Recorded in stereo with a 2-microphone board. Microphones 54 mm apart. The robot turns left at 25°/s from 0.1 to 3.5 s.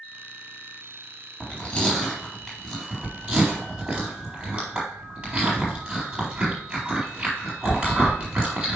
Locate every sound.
1.4 s chewing: 25° left (ahead or behind), 4 m; by 8.8 s 25° right (ahead or behind), 4 m